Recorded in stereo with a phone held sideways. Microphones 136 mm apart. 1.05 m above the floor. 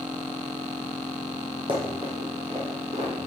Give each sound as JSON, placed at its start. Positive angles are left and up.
{"t": 1.7, "sound": "running footsteps", "side_deg": -40, "distance_m": 2.0}